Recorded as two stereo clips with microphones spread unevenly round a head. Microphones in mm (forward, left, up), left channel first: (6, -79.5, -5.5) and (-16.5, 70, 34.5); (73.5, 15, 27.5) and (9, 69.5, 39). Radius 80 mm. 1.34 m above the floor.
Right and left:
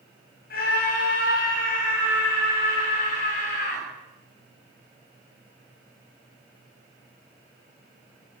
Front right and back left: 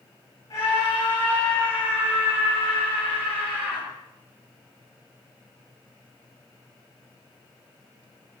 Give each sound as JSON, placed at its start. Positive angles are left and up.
{"t": 0.5, "sound": "a scream", "azimuth_deg": -105, "distance_m": 9.0}